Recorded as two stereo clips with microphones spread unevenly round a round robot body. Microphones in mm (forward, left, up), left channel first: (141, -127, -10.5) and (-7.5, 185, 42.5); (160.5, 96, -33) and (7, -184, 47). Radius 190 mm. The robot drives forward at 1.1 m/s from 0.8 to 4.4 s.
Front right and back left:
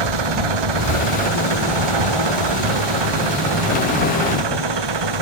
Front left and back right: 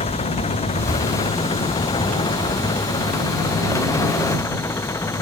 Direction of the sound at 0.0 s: 135° left.